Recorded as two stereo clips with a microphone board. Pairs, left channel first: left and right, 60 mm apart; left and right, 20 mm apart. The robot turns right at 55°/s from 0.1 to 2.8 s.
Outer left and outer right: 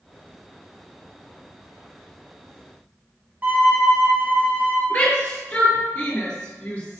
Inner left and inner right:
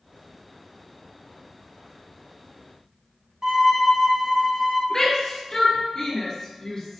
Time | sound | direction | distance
3.4 | a violin | 30° right (ahead or behind) | 0.9 m
4.9 | a shout | 35° left (ahead or behind) | 2.0 m